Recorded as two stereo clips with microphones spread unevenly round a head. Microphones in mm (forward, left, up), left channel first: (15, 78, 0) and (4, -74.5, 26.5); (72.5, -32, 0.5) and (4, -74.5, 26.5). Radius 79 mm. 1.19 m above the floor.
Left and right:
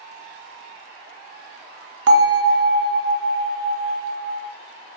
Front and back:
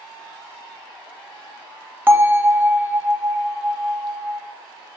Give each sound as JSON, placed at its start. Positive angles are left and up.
{"t": 2.1, "sound": "a bell", "azimuth_deg": -85, "distance_m": 0.5}